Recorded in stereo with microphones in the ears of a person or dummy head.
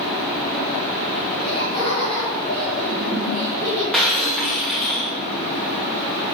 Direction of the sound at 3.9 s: 5° left (ahead or behind).